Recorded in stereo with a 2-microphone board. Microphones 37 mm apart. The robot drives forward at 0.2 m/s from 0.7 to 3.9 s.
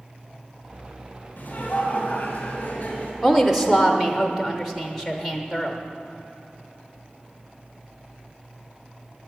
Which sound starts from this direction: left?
Laughter, at 1.4 s.